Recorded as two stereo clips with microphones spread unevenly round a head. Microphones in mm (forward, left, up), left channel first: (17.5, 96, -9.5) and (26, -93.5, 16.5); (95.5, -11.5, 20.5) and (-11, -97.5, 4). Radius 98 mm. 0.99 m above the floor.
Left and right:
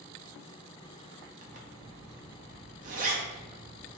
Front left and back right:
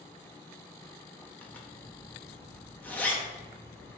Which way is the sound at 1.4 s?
40° right.